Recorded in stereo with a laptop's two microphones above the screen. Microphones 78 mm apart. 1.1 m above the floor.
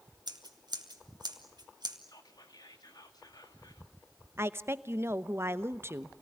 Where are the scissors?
65° right (ahead or behind), 2.5 m.